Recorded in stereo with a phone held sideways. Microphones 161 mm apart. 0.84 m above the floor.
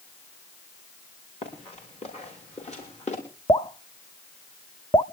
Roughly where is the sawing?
I don't hear sawing.